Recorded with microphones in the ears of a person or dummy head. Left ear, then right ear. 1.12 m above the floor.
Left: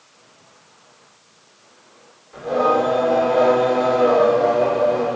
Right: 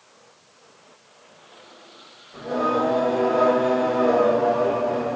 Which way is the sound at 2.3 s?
70° left (ahead or behind).